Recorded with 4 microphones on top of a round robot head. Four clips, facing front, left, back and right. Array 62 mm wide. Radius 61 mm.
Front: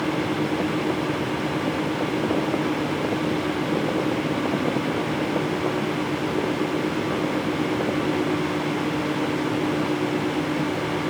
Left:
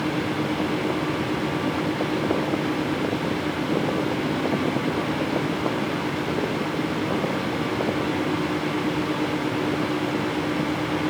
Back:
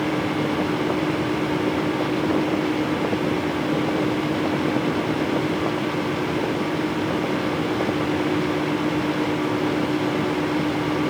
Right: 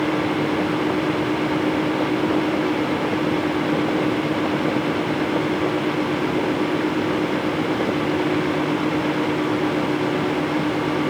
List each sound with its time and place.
Only background noise.